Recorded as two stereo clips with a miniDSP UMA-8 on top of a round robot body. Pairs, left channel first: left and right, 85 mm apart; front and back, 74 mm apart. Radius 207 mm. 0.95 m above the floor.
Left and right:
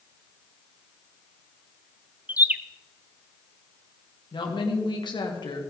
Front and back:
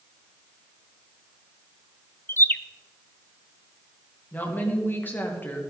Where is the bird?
35° right, 0.9 m.